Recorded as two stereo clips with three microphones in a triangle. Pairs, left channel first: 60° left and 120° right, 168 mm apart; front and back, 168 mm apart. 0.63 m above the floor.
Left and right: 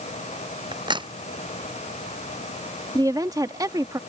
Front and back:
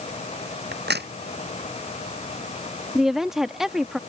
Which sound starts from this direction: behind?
A crack, at 0.7 s.